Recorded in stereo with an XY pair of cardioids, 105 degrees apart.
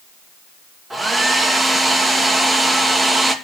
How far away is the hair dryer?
About 3 m.